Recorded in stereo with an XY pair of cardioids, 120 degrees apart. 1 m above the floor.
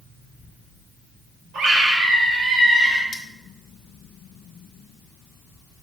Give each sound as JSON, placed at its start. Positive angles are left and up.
{"t": 1.5, "sound": "a scream", "azimuth_deg": -70, "distance_m": 3.5}
{"t": 3.1, "sound": "cutlery clinking", "azimuth_deg": 35, "distance_m": 1.2}